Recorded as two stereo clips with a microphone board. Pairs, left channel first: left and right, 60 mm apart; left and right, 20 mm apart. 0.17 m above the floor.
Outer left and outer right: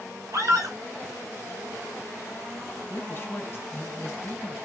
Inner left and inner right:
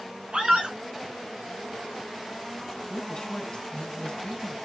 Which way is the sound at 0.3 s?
65° right (ahead or behind).